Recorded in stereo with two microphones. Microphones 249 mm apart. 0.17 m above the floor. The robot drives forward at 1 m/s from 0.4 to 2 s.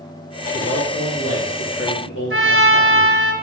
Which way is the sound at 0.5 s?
70° left (ahead or behind).